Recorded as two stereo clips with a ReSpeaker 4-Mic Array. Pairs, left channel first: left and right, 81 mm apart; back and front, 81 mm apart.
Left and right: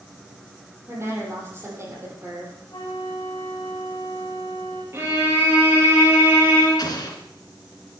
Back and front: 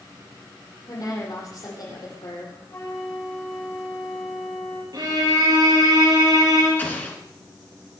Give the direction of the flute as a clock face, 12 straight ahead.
8 o'clock.